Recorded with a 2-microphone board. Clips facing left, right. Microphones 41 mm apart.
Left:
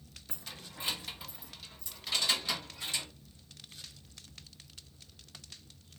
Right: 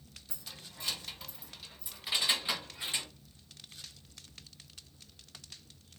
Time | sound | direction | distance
0.3 | keys jangling | 45° left (ahead or behind) | 0.7 m